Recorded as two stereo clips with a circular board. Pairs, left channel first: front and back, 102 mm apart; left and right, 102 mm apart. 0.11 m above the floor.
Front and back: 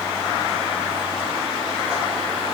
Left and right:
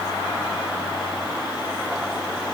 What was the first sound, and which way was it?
Only background noise.